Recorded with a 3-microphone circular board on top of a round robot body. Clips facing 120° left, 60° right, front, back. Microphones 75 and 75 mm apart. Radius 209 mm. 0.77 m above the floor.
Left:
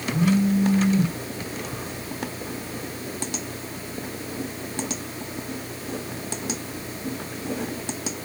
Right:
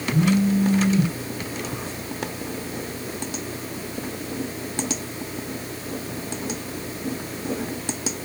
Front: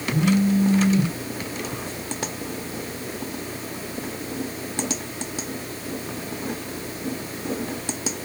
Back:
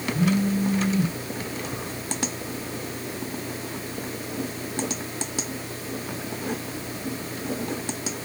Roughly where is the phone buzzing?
Ahead left.